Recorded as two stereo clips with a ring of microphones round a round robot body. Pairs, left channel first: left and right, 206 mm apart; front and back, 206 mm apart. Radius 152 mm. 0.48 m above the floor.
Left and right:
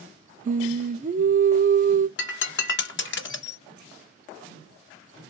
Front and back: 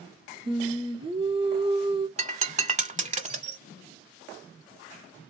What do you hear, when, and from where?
0.5 s singing: 125° right, 0.7 m
2.2 s breaking glass: 120° left, 1.0 m